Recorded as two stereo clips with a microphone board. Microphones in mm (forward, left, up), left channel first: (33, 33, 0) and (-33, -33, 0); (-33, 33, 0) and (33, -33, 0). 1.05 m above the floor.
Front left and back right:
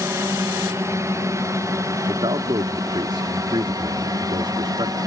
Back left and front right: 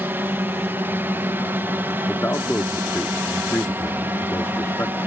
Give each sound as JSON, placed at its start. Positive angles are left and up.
{"t": 0.0, "sound": "a drone", "azimuth_deg": -100}
{"t": 2.1, "sound": "a man speaking", "azimuth_deg": -160}